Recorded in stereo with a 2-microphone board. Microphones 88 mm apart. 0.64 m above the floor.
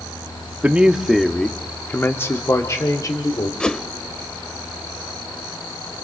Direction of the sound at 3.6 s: 10° left (ahead or behind).